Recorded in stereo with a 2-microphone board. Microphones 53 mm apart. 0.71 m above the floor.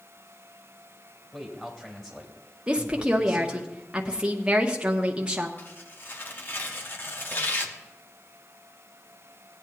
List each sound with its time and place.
1.3 s a man speaking: 5° left (ahead or behind), 3 m
2.7 s a woman speaking: 20° right (ahead or behind), 0.9 m
5.6 s tearing paper: 40° left (ahead or behind), 1.0 m